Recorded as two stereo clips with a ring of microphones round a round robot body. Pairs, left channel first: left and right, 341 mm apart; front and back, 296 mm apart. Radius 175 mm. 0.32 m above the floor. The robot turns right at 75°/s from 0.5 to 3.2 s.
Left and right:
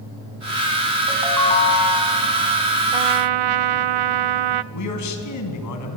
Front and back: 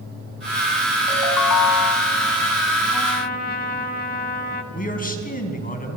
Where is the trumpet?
85° right, 0.5 m; by 4.6 s 65° right, 0.5 m.